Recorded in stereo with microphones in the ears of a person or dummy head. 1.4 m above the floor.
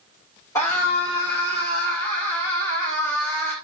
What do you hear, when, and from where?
0.6 s a scream: 15° left (ahead or behind), 5 m